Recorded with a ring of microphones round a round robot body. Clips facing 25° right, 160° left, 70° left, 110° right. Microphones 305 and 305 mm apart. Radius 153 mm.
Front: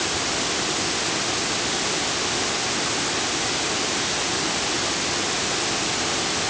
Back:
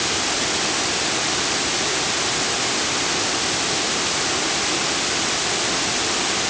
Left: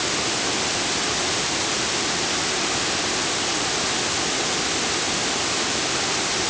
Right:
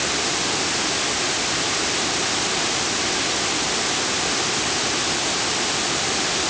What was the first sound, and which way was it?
Only background noise.